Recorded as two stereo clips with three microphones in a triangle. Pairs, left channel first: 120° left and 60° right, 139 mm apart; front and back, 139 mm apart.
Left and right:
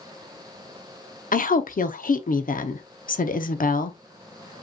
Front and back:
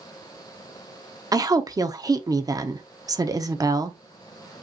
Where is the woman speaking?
115° left, 0.8 m.